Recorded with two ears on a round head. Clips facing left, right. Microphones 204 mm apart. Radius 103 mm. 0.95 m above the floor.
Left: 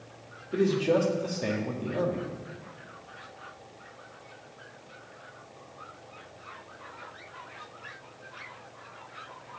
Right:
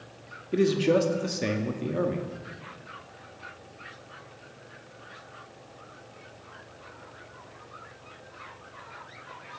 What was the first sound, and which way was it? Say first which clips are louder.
A man speaking: right 2 dB; 30° right (ahead or behind).